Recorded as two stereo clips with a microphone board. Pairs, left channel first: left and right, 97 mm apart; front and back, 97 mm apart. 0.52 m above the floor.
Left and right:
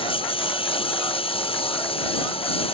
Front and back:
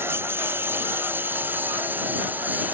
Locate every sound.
0.0 s a lawn mower: 115° left; by 2.8 s 110° left